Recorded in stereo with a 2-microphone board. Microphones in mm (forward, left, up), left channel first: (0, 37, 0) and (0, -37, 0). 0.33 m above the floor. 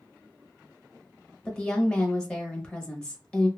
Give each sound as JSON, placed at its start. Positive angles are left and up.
{"t": 1.4, "sound": "a woman speaking", "side_deg": 10, "distance_m": 1.0}